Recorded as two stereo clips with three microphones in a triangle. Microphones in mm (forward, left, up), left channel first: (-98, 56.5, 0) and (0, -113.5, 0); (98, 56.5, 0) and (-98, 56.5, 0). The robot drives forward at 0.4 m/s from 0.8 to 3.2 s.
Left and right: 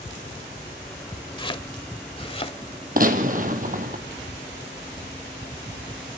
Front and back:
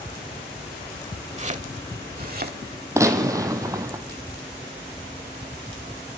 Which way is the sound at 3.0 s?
105° right.